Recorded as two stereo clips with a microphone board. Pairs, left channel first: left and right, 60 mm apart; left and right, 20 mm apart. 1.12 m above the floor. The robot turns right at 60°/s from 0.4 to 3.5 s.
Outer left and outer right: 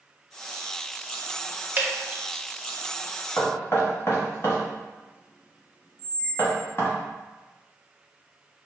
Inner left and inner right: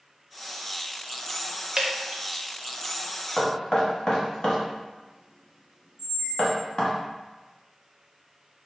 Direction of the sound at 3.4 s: 50° left (ahead or behind).